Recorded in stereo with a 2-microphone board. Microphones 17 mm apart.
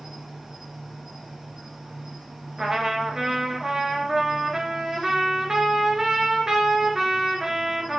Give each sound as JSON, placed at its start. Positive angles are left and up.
{"t": 0.0, "sound": "an insect", "side_deg": -50, "distance_m": 4.5}
{"t": 2.6, "sound": "a trumpet", "side_deg": -40, "distance_m": 2.0}